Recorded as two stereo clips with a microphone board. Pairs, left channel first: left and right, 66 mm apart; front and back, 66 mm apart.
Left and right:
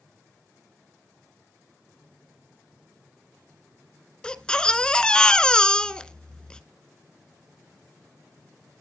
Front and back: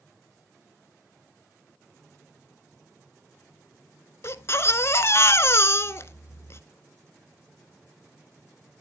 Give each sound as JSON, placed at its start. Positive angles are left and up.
{"t": 4.2, "sound": "a baby crying", "azimuth_deg": 20, "distance_m": 0.8}